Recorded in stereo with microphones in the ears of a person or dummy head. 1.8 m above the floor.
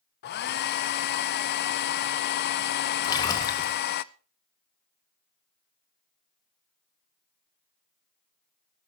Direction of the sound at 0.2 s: 50° left (ahead or behind).